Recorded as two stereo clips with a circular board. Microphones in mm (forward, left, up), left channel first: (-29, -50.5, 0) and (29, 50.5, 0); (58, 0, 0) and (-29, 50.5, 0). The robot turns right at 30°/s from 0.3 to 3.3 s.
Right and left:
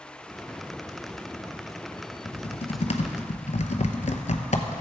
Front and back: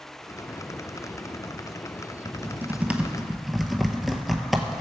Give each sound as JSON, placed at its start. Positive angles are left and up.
{"t": 2.2, "sound": "typing on a keyboard", "azimuth_deg": -155, "distance_m": 0.7}